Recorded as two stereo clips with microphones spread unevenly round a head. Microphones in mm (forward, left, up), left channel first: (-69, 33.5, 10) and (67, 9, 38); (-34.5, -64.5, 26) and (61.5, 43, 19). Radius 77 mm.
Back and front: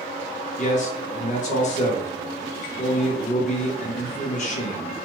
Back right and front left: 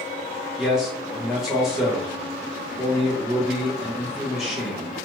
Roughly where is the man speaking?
Behind left.